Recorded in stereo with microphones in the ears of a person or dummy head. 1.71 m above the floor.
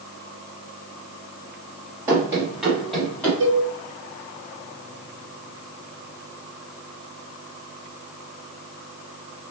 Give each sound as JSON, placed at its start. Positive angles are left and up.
{"t": 2.1, "sound": "running footsteps", "side_deg": -20, "distance_m": 2.5}
{"t": 3.4, "sound": "a cowbell", "side_deg": -55, "distance_m": 2.5}